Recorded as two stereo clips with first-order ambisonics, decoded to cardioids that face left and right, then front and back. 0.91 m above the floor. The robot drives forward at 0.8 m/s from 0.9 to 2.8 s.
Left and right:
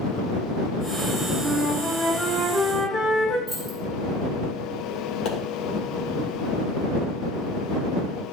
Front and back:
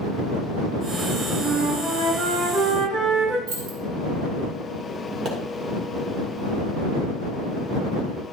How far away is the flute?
About 4.5 m.